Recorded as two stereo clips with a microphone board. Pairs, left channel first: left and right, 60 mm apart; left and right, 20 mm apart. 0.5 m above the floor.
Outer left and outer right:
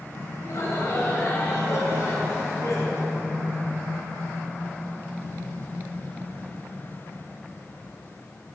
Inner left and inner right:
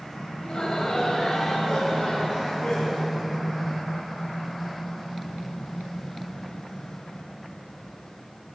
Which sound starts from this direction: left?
Laughter, at 0.4 s.